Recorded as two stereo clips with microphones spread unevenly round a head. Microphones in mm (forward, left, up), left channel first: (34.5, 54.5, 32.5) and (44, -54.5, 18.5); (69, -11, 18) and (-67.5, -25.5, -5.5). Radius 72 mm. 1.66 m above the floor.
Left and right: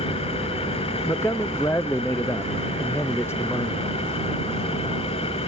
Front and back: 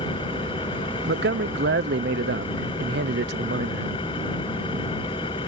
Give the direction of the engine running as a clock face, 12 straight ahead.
10 o'clock.